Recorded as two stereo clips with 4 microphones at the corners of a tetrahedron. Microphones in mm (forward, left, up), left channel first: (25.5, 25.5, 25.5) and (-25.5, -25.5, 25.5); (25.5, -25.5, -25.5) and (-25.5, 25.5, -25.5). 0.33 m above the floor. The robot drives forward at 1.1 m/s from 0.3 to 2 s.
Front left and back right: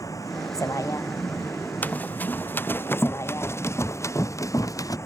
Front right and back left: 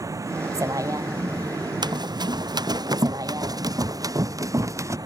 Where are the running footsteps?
115° left; by 5.0 s 85° left.